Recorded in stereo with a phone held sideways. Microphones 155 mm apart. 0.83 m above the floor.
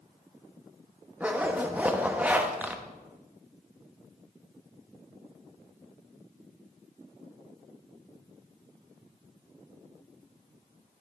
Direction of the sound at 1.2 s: 10° right (ahead or behind).